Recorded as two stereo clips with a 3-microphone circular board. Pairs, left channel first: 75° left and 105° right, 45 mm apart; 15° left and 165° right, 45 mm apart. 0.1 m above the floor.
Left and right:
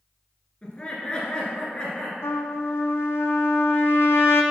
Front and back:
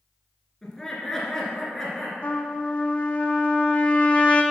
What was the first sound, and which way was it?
Laughter, 80° left.